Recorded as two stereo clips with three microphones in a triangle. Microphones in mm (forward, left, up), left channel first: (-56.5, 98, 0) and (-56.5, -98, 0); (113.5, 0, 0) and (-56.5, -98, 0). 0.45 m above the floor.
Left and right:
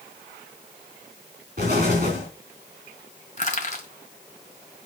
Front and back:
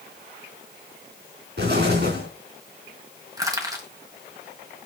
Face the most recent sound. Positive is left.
turn(degrees=140)